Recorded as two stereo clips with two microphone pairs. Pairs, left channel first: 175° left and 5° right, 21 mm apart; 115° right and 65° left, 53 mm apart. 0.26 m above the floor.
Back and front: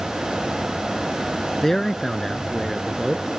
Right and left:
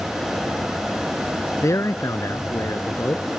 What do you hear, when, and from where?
1.6 s a man speaking: 110° right; by 3.2 s 90° right